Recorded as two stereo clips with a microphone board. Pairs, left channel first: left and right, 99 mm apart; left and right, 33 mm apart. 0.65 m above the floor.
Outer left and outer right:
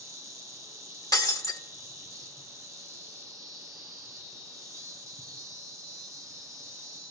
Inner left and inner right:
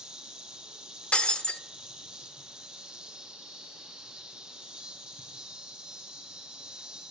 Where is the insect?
30° right (ahead or behind), 1.5 m.